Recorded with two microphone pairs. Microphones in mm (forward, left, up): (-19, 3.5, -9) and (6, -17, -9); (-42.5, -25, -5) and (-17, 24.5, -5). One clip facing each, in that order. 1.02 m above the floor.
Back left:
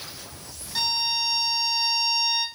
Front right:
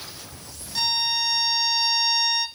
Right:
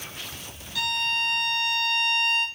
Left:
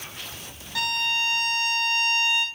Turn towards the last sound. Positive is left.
turn(degrees=65)